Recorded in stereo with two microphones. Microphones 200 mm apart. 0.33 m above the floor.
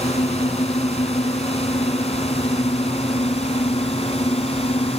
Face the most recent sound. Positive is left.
turn(degrees=30)  # may be behind; listen again after turning